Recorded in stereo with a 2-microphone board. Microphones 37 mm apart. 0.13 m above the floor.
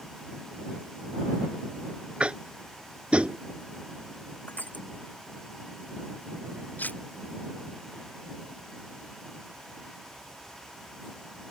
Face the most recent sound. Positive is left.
turn(degrees=55)  # may be behind; listen again after turning